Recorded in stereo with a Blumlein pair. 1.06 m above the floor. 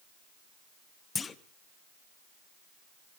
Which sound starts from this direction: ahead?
A clunk, at 1.1 s.